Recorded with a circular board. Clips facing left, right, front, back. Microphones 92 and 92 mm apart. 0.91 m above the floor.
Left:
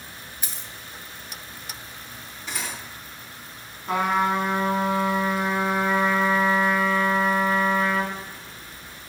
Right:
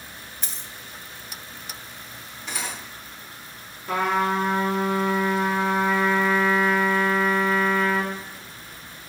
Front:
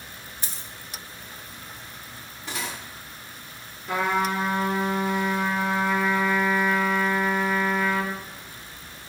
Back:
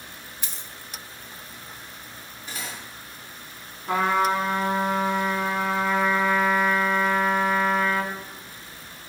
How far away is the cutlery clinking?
About 1.1 m.